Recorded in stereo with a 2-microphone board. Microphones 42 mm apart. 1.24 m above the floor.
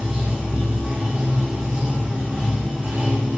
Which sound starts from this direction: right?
Running water, at 0.0 s.